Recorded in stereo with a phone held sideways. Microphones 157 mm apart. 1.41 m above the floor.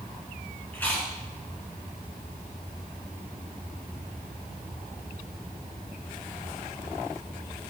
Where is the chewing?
10° left (ahead or behind), 2.5 m.